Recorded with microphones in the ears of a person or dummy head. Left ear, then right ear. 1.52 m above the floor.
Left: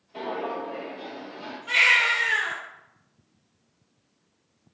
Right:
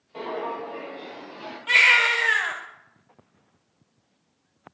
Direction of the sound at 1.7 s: 35° right (ahead or behind).